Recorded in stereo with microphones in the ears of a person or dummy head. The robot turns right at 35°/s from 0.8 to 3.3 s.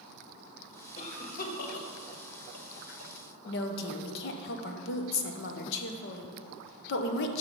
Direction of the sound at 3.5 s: 65° left (ahead or behind).